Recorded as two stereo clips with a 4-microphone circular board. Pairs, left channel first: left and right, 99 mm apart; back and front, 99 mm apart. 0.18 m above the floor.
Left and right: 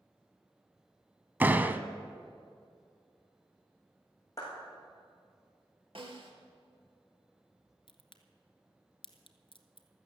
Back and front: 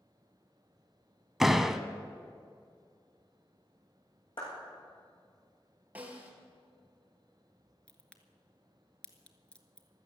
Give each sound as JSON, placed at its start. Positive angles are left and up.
{"t": 1.4, "sound": "a door slam", "azimuth_deg": -80, "distance_m": 0.7}
{"t": 4.4, "sound": "a clap", "azimuth_deg": 145, "distance_m": 8.0}
{"t": 6.0, "sound": "a snare drum", "azimuth_deg": -75, "distance_m": 2.5}
{"t": 7.9, "sound": "a crack", "azimuth_deg": 105, "distance_m": 1.2}